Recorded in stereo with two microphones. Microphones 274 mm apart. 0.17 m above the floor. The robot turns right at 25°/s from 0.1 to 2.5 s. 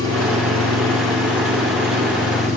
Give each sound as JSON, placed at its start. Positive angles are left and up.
{"t": 0.0, "sound": "an engine running", "azimuth_deg": -90, "distance_m": 6.0}